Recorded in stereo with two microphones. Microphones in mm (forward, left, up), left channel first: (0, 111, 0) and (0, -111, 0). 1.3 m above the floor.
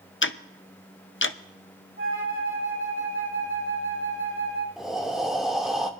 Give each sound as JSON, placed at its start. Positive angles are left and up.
{"t": 0.2, "sound": "ticking", "side_deg": 60, "distance_m": 0.6}
{"t": 2.0, "sound": "a flute", "side_deg": -65, "distance_m": 2.0}
{"t": 4.8, "sound": "breathing", "side_deg": 0, "distance_m": 1.2}